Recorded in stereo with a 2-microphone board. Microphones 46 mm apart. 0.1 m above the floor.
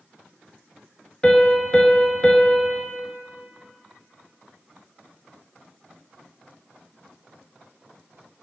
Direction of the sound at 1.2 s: 20° left (ahead or behind).